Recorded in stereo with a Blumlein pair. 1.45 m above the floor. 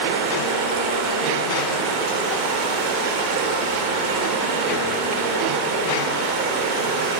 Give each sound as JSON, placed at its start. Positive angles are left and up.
{"t": 0.0, "sound": "running water", "azimuth_deg": -35, "distance_m": 2.5}